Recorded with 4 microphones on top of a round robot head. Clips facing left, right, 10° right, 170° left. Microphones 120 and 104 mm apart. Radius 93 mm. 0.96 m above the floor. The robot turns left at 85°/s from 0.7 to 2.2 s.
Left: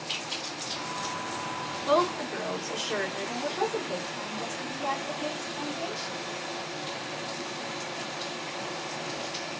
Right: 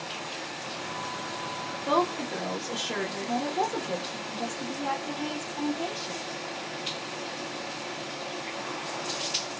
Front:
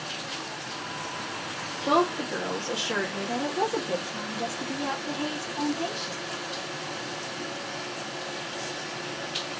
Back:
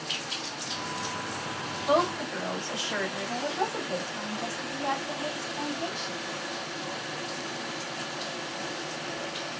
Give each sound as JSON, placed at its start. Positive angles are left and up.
{"t": 1.9, "sound": "a woman speaking", "azimuth_deg": -20, "distance_m": 1.2}